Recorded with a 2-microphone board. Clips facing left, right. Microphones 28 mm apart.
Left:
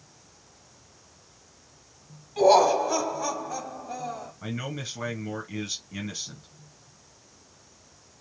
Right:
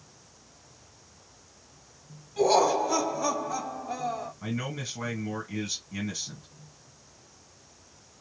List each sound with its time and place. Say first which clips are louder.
2.4 s laughter: left 4 dB; 25° left (ahead or behind), 1.2 m; by 4.3 s 20° right (ahead or behind), 1.3 m
4.4 s a man speaking: left 3 dB; 10° left (ahead or behind), 1.8 m